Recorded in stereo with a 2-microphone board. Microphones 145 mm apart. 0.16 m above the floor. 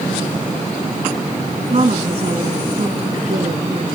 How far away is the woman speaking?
About 2 m.